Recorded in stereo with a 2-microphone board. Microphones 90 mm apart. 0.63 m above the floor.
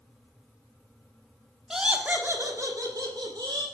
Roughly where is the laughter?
Centre.